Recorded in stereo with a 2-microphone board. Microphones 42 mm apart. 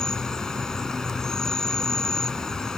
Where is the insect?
15° left (ahead or behind).